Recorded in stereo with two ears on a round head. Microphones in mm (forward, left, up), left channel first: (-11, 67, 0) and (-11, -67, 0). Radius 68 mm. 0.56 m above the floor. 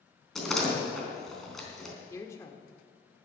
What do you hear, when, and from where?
0.3 s a door slam: 5° left (ahead or behind), 3.5 m
2.1 s a woman speaking: 20° left (ahead or behind), 1.4 m